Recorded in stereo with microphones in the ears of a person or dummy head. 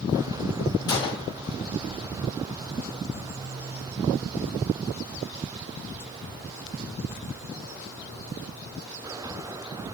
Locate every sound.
0.9 s a gunshot: 20° left (ahead or behind), 1.7 m